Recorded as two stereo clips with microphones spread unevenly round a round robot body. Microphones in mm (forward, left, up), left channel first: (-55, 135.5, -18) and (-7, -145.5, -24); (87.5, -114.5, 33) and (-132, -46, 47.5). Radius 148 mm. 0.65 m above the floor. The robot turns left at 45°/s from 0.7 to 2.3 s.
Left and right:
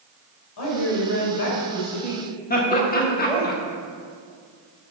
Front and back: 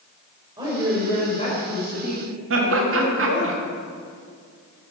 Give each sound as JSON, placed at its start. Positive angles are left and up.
{"t": 0.6, "sound": "a woman speaking", "azimuth_deg": 90, "distance_m": 3.0}
{"t": 2.5, "sound": "laughter", "azimuth_deg": 155, "distance_m": 1.4}